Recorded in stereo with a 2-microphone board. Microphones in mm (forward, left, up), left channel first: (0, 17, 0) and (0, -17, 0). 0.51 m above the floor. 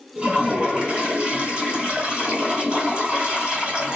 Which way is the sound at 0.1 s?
35° right (ahead or behind).